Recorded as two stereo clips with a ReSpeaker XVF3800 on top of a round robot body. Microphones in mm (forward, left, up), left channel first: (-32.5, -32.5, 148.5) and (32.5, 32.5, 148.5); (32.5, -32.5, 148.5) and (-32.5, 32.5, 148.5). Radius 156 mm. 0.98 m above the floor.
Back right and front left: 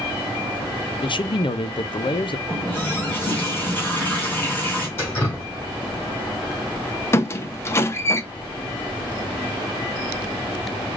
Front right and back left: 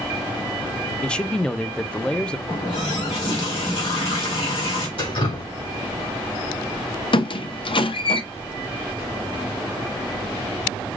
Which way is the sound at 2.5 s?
65° right.